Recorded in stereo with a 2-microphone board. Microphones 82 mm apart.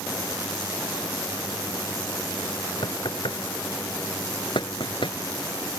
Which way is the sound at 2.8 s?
85° left.